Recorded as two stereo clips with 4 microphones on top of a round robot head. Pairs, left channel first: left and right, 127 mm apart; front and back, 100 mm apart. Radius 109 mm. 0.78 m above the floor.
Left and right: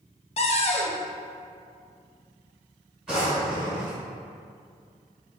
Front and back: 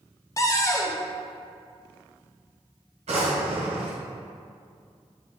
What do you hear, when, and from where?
0.4 s a cupboard door: 60° left, 0.6 m
3.1 s a drawer: 175° right, 1.6 m